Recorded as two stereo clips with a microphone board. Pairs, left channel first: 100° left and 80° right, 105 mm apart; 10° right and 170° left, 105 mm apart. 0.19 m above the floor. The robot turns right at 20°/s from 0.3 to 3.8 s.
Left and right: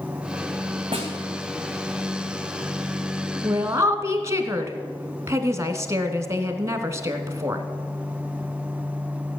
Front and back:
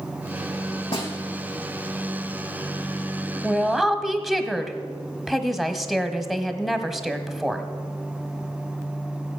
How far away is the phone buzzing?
I don't hear a phone buzzing.